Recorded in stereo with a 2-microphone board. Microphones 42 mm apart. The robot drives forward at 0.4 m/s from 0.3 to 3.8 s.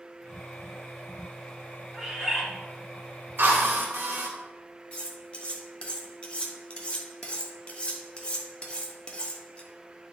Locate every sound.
1.9 s a bird: 5° right (ahead or behind), 3.5 m
3.4 s a drill: 60° right (ahead or behind), 1.5 m; by 4.3 s 55° right (ahead or behind), 1.6 m
4.9 s cutlery clinking: 25° left (ahead or behind), 1.3 m